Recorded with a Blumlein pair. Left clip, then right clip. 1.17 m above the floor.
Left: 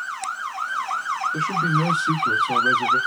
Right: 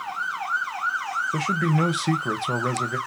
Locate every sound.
1.3 s a man speaking: 60° right, 1.0 m